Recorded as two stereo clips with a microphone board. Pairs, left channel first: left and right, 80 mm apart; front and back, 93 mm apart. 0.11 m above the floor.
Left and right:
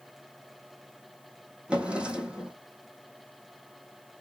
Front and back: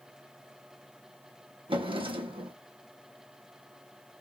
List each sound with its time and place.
1.7 s a drawer: 165° right, 1.2 m